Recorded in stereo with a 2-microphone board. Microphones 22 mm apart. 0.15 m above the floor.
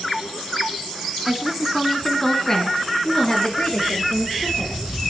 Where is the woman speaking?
20° right (ahead or behind), 1.3 m; by 4.8 s 35° left (ahead or behind), 4 m.